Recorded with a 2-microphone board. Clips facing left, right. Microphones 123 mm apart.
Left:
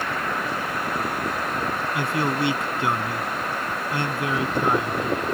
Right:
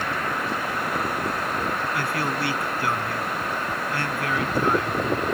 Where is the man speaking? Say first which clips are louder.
Left 2 dB; 25° left (ahead or behind).